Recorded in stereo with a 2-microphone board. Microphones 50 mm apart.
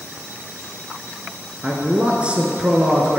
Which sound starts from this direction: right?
A man speaking, at 1.6 s.